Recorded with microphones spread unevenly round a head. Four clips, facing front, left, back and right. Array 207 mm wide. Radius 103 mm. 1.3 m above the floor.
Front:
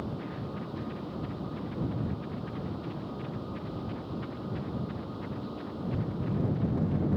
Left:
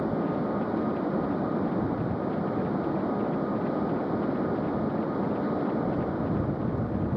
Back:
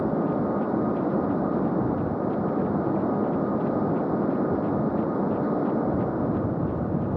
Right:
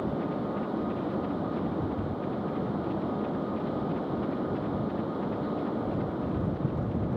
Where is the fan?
175° left.